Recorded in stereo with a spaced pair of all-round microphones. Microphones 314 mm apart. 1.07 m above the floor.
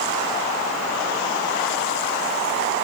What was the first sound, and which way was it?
Only background noise.